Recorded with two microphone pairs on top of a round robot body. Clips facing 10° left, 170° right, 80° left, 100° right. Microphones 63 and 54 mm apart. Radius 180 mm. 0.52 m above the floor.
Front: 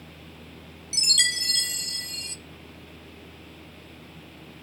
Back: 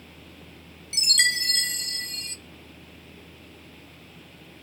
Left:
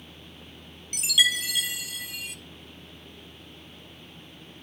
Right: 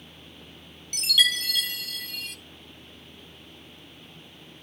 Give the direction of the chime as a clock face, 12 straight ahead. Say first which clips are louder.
Back 3 dB, even; 7 o'clock.